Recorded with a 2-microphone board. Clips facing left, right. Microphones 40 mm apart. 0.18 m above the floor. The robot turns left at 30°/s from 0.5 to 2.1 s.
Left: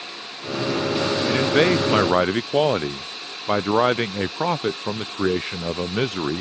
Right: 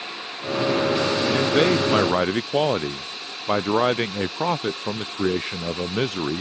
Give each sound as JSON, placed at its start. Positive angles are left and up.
{"t": 1.3, "sound": "a man speaking", "side_deg": 45}